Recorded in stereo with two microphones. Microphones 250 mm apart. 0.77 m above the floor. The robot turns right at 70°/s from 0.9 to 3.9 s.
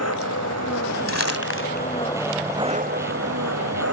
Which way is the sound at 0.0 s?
80° left.